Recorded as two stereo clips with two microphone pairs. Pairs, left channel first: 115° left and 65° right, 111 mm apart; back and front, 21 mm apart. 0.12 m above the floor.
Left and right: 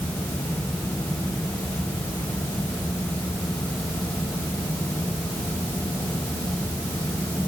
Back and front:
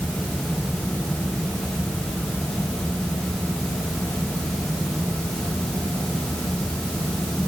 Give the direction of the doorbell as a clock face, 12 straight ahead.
I don't hear a doorbell.